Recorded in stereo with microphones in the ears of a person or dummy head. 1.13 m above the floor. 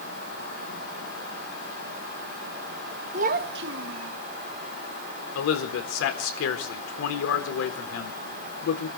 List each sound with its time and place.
3.1 s a child speaking: 40° right (ahead or behind), 0.9 m; by 4.2 s 85° right, 1.3 m
5.3 s a man speaking: 75° left (ahead or behind), 3.5 m